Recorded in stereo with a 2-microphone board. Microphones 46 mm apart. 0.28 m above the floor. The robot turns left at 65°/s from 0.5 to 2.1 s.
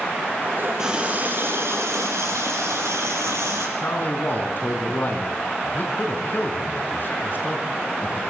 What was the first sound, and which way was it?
A running tap, 10° right.